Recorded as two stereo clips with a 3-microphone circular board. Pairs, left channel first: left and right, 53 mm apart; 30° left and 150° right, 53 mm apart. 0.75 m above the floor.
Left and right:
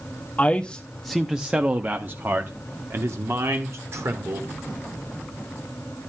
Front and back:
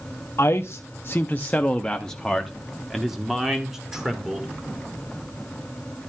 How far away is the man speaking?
About 0.8 m.